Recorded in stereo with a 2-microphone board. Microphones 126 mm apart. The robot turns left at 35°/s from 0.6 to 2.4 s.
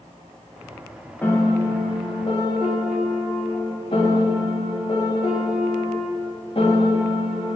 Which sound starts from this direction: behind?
A piano, at 1.2 s.